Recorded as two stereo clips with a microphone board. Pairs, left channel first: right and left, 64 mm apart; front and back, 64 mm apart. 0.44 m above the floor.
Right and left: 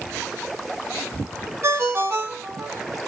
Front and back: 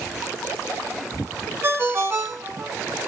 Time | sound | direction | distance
1.6 | a ringtone | 130° left | 1.7 m